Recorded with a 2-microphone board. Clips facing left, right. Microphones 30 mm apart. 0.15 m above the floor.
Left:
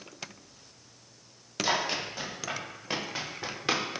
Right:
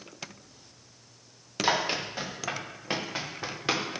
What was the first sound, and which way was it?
Running footsteps, 25° right (ahead or behind).